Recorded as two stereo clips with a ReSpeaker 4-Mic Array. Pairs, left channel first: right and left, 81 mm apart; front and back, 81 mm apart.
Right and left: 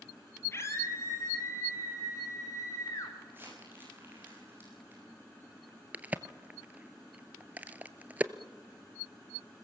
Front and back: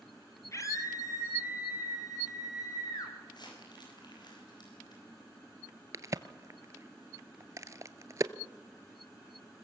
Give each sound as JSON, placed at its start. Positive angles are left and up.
{"t": 0.5, "sound": "a scream", "azimuth_deg": -40, "distance_m": 2.5}
{"t": 3.3, "sound": "crumpling", "azimuth_deg": 30, "distance_m": 9.0}
{"t": 5.9, "sound": "a crack", "azimuth_deg": 155, "distance_m": 0.7}